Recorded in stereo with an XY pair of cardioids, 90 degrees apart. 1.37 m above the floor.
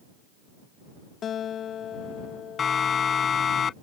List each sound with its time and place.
1.2 s a guitar: 70° left
2.6 s a siren: 50° left